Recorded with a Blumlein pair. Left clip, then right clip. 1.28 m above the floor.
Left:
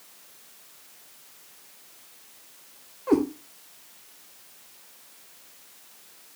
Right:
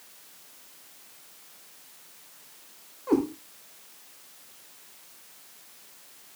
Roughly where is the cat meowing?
Ahead.